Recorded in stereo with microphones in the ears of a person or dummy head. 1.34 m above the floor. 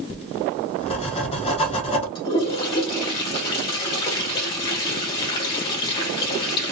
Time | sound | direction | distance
0.1 | writing | 35° left (ahead or behind) | 1.0 m
2.1 | a toilet flushing | 30° left (ahead or behind) | 1.2 m